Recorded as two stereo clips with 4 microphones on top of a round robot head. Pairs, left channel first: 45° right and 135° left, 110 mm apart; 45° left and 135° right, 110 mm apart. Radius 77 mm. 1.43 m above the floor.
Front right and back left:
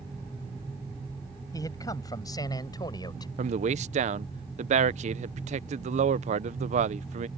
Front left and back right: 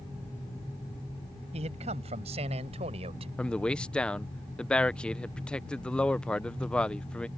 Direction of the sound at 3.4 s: 125° left.